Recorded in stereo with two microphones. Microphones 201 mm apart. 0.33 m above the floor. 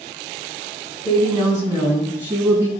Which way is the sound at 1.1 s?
15° left (ahead or behind).